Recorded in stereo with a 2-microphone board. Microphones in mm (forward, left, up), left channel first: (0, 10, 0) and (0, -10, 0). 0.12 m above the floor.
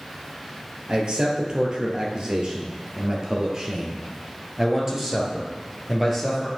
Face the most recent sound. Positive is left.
turn(degrees=-5)  # may be behind; listen again after turning